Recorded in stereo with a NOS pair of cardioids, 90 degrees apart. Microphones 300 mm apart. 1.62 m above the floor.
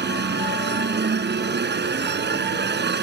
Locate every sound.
0.0 s a machine running: 35° right